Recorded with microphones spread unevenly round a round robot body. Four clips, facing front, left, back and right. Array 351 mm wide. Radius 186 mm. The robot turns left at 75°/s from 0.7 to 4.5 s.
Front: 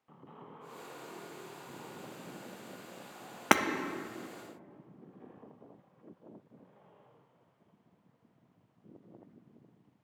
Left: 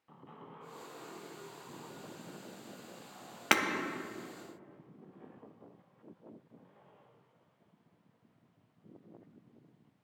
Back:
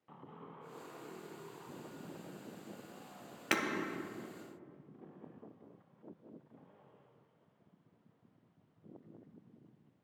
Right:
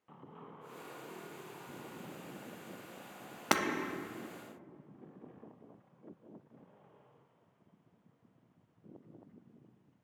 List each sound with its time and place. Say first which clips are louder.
3.5 s breaking glass: left 1 dB, front 9 dB; 5° left, 0.6 m; by 3.6 s 5° right, 0.6 m